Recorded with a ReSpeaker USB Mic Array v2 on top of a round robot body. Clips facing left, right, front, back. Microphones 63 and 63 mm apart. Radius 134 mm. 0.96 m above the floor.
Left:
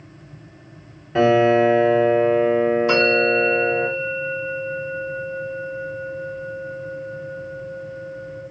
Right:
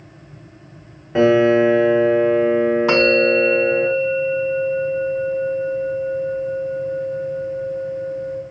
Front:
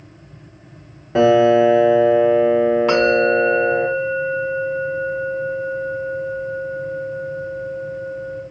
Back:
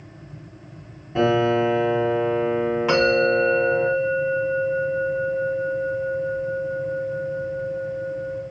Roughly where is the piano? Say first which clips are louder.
Right 2 dB, front 7 dB; ahead.